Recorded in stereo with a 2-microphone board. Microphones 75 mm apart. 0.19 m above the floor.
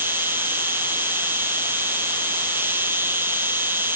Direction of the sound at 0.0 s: 30° right (ahead or behind).